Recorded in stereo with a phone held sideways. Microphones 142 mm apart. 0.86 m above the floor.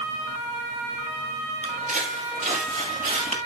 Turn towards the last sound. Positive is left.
turn(degrees=-60)  # may be behind; listen again after turning